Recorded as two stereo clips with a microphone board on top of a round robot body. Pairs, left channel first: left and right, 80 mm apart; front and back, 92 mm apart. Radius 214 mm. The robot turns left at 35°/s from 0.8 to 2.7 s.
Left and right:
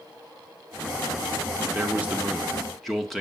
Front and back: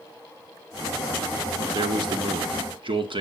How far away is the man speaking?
About 2.5 m.